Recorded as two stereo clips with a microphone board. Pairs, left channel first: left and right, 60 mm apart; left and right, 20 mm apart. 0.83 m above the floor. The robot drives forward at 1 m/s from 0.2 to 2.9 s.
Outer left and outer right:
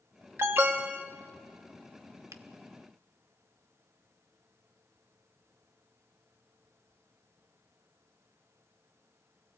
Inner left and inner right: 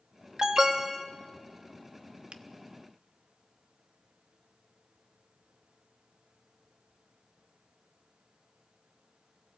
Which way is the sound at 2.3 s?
65° right (ahead or behind).